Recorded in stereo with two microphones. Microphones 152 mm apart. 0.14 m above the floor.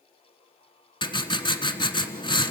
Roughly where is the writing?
Left.